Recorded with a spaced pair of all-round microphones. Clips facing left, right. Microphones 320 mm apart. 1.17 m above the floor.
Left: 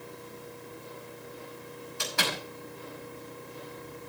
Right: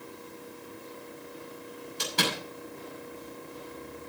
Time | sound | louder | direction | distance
2.0 | a door slam | right 3 dB | 45° right (ahead or behind) | 6 m